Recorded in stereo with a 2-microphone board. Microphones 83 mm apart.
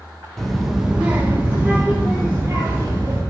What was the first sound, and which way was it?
A child speaking, 5° left (ahead or behind).